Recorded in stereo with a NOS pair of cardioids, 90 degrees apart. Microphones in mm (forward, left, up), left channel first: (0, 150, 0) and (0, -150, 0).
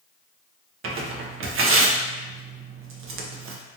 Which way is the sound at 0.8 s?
45° right.